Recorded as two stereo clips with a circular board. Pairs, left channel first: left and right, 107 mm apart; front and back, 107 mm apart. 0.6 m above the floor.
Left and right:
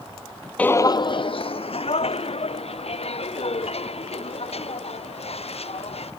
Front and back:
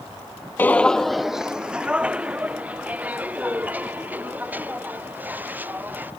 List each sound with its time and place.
0.6 s footsteps: 35° left; by 6.1 s 105° left